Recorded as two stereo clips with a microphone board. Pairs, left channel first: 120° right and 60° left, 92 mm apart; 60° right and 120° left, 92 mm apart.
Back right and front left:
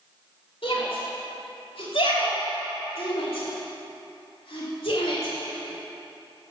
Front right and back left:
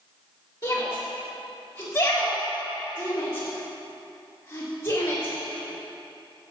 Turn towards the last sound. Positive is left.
turn(degrees=-110)